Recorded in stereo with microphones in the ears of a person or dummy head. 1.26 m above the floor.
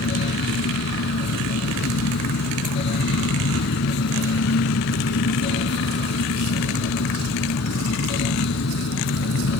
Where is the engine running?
70° left (ahead or behind).